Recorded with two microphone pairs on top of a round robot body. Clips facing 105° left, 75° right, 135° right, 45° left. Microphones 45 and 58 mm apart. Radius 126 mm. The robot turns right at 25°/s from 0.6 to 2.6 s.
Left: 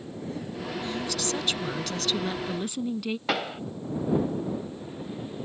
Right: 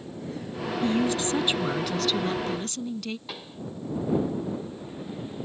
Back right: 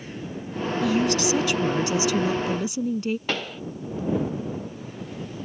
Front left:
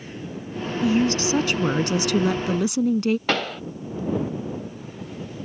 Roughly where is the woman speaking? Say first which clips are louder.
Right 9 dB, front left 2 dB; ahead.